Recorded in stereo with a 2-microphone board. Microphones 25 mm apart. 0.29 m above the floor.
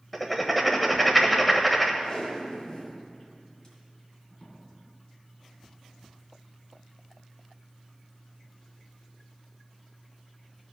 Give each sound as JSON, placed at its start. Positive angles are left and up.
{"t": 0.1, "sound": "writing", "side_deg": 5, "distance_m": 1.1}
{"t": 2.0, "sound": "tape being pulled", "side_deg": 30, "distance_m": 3.0}